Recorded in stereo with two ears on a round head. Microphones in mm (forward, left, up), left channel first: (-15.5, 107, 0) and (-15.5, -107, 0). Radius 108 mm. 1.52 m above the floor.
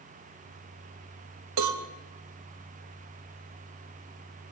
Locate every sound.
1.6 s a cowbell: 85° right, 3 m